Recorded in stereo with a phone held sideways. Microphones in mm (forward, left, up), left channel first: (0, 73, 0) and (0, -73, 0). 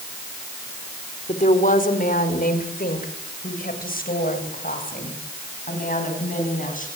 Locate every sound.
1.3 s a woman speaking: 60° left (ahead or behind), 3.5 m; by 6.9 s 65° left (ahead or behind), 10 m